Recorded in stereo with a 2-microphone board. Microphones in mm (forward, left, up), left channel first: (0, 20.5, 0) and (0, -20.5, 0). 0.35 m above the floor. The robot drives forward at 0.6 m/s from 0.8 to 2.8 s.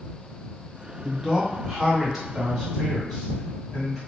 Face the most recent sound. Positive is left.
turn(degrees=-10)  # may be behind; listen again after turning